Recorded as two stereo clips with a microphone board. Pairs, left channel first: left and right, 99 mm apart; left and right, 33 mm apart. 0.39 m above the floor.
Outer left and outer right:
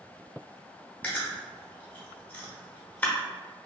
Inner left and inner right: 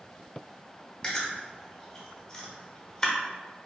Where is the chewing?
15° left (ahead or behind), 0.7 m.